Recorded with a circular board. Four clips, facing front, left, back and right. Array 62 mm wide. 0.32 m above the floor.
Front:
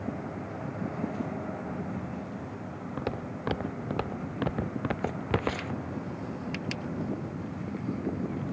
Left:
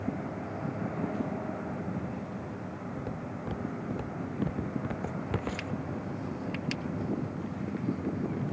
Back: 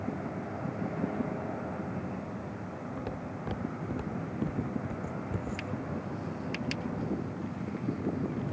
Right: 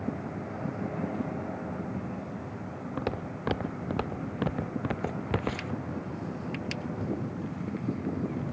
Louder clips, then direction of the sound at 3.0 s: Right 7 dB, front 3 dB; 60° right.